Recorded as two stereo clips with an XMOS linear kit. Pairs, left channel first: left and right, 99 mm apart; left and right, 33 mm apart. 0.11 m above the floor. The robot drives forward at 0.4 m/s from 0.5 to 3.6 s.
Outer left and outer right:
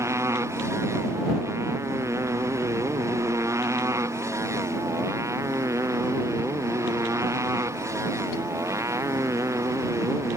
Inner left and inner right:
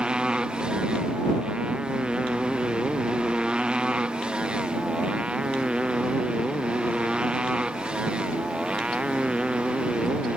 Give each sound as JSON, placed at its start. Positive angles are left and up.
{"t": 0.0, "sound": "a motorcycle", "side_deg": -30}